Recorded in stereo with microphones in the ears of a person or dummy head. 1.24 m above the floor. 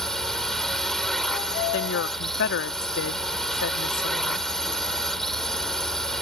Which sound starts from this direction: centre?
A drone, at 0.0 s.